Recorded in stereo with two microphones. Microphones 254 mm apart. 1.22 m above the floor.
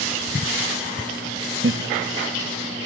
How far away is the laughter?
About 1.3 m.